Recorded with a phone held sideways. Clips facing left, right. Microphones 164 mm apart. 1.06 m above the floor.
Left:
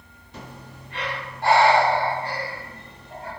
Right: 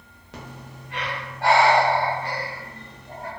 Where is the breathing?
80° right, 0.7 m.